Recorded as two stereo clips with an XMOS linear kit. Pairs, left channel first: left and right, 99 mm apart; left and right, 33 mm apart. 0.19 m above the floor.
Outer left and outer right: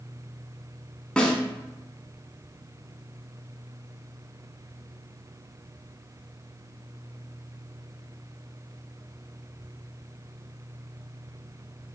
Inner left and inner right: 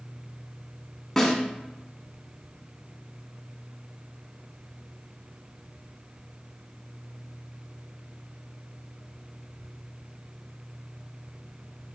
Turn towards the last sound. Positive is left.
turn(degrees=10)  # may be behind; listen again after turning